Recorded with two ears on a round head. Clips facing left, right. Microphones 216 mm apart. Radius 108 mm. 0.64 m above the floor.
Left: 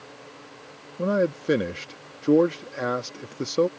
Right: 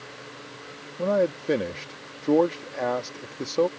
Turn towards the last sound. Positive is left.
turn(degrees=20)  # may be behind; listen again after turning